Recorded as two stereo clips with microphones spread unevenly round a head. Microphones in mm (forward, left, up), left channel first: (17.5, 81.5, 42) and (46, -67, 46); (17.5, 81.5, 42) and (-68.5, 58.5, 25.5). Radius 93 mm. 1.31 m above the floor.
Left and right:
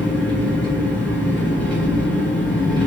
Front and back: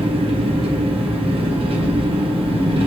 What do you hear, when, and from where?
0.0 s an engine running: 175° right, 2 m